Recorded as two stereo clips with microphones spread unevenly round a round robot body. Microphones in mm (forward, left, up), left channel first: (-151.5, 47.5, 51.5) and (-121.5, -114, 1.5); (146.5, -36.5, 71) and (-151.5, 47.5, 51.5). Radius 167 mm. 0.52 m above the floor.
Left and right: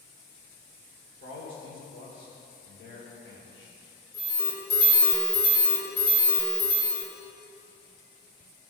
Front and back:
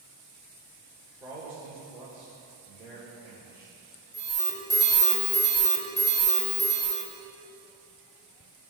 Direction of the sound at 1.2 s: 85° left.